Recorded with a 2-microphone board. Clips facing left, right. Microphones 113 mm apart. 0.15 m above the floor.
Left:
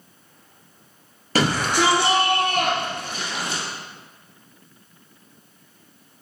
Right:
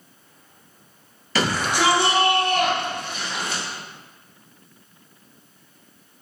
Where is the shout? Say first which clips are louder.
Left 2 dB; 45° left (ahead or behind), 2.5 m; by 3.6 s 35° left (ahead or behind), 2.5 m.